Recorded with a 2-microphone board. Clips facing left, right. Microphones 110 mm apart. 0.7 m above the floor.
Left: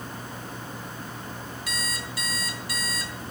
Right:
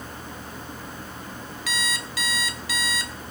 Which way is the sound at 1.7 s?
85° right.